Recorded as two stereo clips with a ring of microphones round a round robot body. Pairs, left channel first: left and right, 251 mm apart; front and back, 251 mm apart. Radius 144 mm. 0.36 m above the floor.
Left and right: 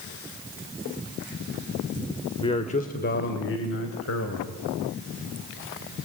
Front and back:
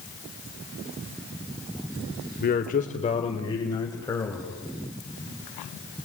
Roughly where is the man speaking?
Ahead left.